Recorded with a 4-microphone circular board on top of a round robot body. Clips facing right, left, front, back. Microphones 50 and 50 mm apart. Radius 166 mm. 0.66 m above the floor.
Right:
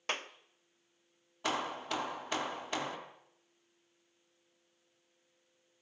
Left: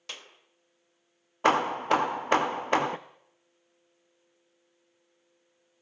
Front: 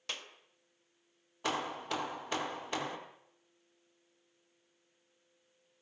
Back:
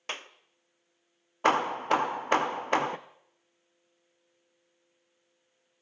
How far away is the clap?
About 1.2 m.